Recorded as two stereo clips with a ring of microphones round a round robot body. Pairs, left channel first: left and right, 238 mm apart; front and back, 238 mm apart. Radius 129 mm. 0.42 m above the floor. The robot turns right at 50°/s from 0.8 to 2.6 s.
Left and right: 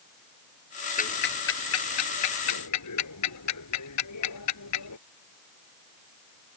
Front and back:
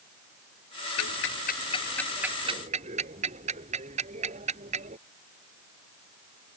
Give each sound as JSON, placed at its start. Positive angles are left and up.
{"t": 1.0, "sound": "ticking", "azimuth_deg": 35}